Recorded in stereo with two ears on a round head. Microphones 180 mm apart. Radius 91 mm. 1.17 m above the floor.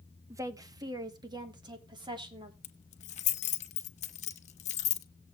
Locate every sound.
0.3 s a woman speaking: 15° right (ahead or behind), 1.2 m; by 2.5 s 25° right (ahead or behind), 4 m
2.6 s keys jangling: 30° left (ahead or behind), 1.1 m